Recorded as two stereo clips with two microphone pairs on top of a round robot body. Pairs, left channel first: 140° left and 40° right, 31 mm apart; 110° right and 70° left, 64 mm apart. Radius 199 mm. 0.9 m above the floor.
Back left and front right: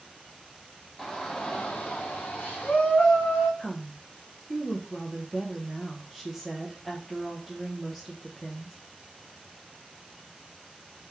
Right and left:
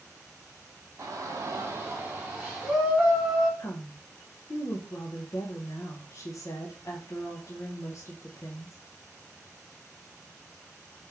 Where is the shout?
65° left, 0.8 m; by 3.5 s 170° left, 1.4 m.